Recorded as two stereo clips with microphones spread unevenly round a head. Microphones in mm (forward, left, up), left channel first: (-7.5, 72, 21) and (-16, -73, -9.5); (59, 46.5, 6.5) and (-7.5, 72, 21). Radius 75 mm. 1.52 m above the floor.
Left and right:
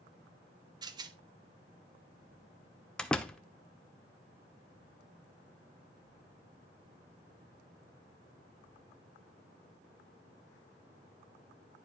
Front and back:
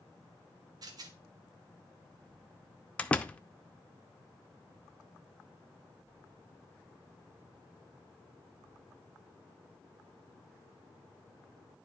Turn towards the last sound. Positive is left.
turn(degrees=55)